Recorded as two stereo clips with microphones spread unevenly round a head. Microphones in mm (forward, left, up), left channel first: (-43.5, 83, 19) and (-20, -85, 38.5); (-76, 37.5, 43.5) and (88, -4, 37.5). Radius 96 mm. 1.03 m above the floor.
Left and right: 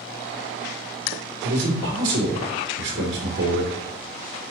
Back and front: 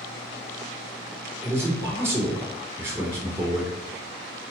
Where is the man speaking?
90° right, 3 m.